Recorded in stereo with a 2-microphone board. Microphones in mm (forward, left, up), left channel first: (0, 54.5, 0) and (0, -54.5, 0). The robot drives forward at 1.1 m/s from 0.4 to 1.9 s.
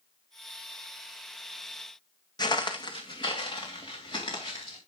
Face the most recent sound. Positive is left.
turn(degrees=45)  # may be behind; listen again after turning